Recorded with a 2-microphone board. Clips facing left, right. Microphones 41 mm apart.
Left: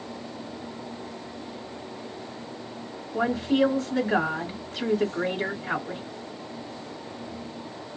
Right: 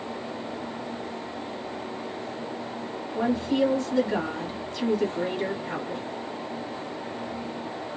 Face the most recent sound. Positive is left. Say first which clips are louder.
# left 1 dB
turn(degrees=25)  # may be behind; listen again after turning